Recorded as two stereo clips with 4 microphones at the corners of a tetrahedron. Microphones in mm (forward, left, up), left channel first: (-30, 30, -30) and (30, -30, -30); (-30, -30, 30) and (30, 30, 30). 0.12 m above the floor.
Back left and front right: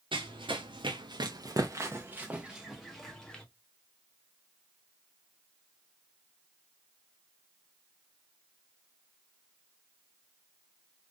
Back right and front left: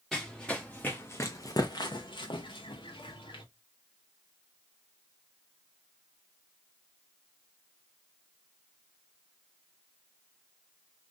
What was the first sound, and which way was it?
Running footsteps, 50° right.